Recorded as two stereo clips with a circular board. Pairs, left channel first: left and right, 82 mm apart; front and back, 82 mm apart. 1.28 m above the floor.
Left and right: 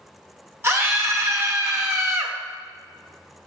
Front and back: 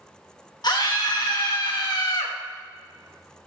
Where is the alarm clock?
No alarm clock in this recording.